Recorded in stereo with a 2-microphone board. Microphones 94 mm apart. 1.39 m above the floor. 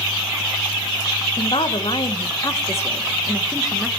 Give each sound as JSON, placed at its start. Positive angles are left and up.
{"t": 1.4, "sound": "a woman speaking", "side_deg": 70, "distance_m": 1.0}